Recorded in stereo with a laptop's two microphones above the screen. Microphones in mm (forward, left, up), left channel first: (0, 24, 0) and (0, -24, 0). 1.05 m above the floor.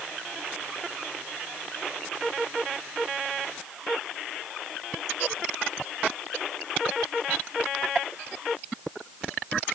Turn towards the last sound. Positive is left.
No sound to turn to.